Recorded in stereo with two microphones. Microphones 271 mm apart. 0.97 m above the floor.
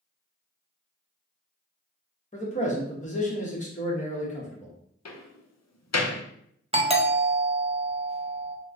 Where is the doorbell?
20° right (ahead or behind), 0.6 m.